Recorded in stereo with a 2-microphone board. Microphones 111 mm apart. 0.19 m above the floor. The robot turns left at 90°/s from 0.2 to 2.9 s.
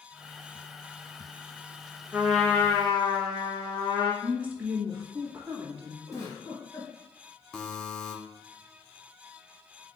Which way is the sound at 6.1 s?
30° left (ahead or behind).